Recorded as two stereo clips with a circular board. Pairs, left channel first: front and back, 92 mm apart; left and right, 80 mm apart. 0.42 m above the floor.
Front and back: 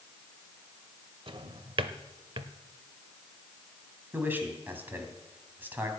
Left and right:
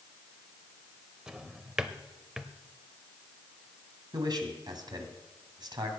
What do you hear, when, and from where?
1.3 s a drawer: 170° right, 0.7 m
4.1 s a man speaking: 110° right, 2.5 m